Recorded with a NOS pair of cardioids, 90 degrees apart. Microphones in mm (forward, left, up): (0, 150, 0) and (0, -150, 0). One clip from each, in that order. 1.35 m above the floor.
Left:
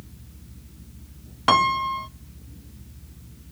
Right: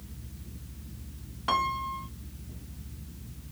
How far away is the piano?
About 0.7 m.